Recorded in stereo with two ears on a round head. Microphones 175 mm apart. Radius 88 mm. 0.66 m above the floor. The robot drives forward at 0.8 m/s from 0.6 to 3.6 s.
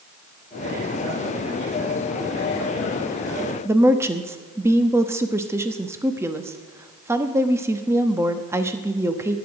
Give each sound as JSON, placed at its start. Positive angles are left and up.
{"t": 3.6, "sound": "a woman speaking", "side_deg": -15, "distance_m": 0.9}